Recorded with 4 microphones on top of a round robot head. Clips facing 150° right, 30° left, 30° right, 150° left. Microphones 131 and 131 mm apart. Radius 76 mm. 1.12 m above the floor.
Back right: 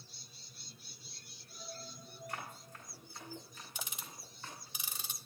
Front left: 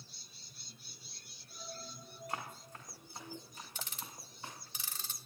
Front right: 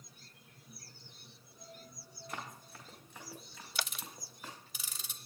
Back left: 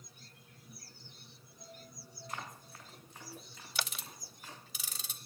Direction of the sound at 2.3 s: 35° right.